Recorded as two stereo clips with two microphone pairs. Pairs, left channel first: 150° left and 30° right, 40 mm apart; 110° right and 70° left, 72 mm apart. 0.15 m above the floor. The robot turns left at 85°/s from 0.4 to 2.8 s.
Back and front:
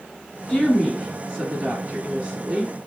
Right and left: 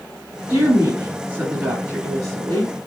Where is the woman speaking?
125° left, 1.7 m; by 2.7 s 70° right, 1.7 m.